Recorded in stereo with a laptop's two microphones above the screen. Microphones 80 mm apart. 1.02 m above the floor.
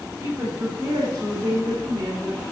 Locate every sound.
0.2 s a woman speaking: 40° right (ahead or behind), 2.5 m; by 2.4 s 55° right (ahead or behind), 3.5 m